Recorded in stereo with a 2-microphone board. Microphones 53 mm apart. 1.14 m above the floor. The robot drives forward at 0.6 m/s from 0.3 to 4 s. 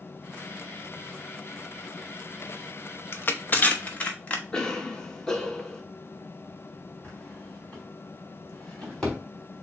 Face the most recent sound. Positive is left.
turn(degrees=15)  # may be behind; listen again after turning